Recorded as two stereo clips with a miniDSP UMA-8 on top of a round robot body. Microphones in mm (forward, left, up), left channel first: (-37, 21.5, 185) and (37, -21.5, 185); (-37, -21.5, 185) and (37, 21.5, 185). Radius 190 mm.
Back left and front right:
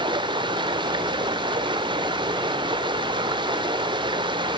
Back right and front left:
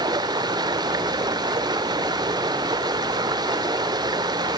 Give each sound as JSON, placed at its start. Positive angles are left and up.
{"t": 0.0, "sound": "running water", "azimuth_deg": -5, "distance_m": 0.8}